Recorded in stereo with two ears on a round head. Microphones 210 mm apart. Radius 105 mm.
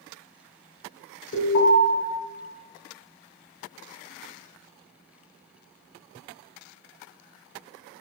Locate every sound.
1.3 s an alarm: 45° left (ahead or behind), 1.4 m